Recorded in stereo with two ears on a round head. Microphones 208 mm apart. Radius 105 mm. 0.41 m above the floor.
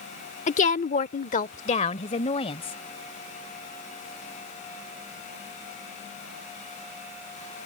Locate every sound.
0.5 s a woman speaking: 30° left (ahead or behind); by 2.8 s 25° left (ahead or behind)